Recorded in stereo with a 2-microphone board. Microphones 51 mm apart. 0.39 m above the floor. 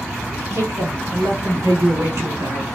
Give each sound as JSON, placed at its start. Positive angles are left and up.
{"t": 0.5, "sound": "a man speaking", "side_deg": -70, "distance_m": 4.5}